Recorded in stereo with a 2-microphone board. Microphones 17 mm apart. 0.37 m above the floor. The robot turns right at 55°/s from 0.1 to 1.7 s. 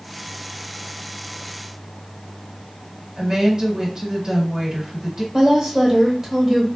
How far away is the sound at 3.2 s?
About 1.3 m.